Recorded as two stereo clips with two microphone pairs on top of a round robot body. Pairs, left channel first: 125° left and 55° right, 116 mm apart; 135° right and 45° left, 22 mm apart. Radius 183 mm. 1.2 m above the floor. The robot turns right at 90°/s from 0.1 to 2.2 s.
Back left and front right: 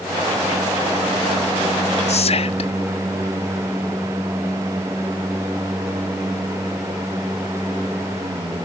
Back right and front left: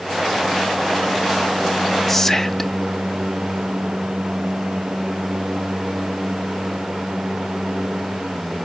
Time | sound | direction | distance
2.1 | whispering | 145° left | 0.6 m